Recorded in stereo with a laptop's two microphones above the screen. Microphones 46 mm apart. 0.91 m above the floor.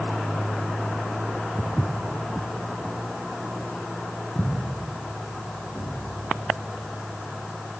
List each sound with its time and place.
1.6 s footsteps: 20° right (ahead or behind), 0.9 m; by 5.9 s 45° left (ahead or behind), 3.5 m